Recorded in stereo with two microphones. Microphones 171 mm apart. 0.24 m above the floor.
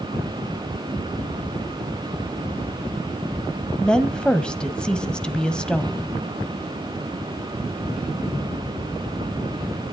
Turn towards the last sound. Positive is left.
turn(degrees=5)  # may be behind; listen again after turning